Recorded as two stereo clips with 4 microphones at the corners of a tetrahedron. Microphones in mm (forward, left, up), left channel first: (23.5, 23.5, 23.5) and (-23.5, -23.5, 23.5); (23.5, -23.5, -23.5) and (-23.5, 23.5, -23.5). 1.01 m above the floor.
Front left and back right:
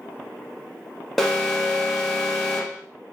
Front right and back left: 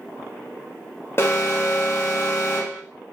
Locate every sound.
1.2 s an alarm: 40° right, 0.6 m